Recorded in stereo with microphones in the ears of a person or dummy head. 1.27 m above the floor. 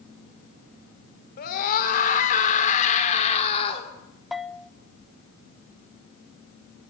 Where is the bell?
Centre (ahead or behind), 0.7 m.